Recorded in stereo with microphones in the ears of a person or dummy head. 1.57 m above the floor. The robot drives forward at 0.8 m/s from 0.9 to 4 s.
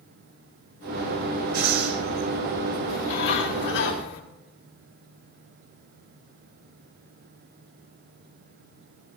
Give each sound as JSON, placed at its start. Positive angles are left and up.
{"t": 1.5, "sound": "breathing", "side_deg": -55, "distance_m": 3.0}
{"t": 2.9, "sound": "a bird", "side_deg": 65, "distance_m": 1.9}